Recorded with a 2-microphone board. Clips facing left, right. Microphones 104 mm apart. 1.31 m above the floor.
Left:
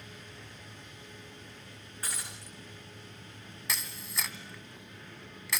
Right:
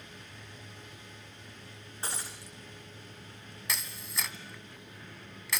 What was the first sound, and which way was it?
Breaking glass, 30° right (ahead or behind).